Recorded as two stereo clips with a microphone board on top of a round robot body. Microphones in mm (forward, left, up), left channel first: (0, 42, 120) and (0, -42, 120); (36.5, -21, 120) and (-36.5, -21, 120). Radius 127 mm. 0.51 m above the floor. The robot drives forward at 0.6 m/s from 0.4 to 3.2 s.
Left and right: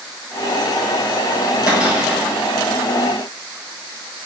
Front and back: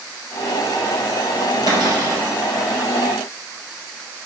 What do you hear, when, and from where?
1.7 s a cupboard door: 165° right, 3 m; by 2.2 s 170° right, 3 m